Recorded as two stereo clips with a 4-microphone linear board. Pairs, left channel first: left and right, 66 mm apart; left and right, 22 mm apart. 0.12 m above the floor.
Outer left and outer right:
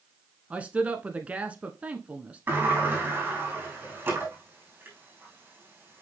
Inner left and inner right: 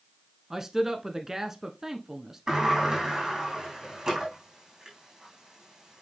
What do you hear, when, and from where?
0.5 s a man speaking: 20° right (ahead or behind), 1.1 m
2.5 s a sliding door: 30° right (ahead or behind), 4.5 m